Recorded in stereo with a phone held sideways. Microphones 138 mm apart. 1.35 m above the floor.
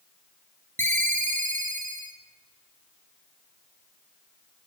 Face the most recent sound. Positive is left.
turn(degrees=-65)  # may be behind; listen again after turning